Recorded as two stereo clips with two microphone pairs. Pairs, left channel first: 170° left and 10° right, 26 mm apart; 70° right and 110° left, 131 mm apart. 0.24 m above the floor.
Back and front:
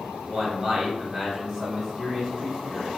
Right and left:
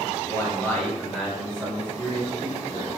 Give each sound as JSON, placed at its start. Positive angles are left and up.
{"t": 0.3, "sound": "a man speaking", "azimuth_deg": -70, "distance_m": 1.0}